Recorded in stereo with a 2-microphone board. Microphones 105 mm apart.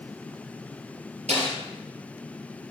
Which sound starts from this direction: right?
A snare drum, at 1.3 s.